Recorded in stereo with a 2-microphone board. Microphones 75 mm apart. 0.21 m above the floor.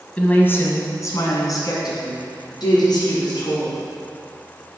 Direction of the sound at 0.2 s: 20° left (ahead or behind).